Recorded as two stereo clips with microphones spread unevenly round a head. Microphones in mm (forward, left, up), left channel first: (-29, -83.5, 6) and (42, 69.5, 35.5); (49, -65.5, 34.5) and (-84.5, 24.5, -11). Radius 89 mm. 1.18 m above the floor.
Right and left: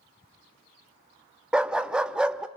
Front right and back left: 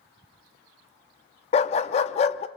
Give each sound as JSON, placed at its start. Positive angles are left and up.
{"t": 1.5, "sound": "a dog barking", "azimuth_deg": -10, "distance_m": 0.8}